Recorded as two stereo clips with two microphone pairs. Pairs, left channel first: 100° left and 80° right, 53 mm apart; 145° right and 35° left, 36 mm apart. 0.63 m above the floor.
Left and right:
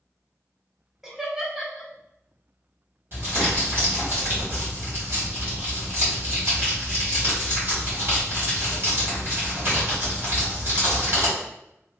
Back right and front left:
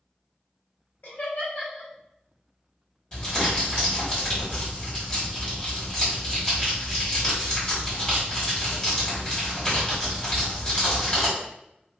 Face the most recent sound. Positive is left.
turn(degrees=-90)